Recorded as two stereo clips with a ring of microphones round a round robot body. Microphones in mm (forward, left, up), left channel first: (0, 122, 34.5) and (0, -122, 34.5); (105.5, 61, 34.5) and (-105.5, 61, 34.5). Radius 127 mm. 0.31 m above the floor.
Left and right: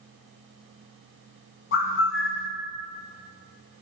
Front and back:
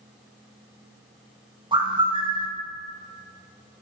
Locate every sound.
1.7 s a bird: 115° left, 1.5 m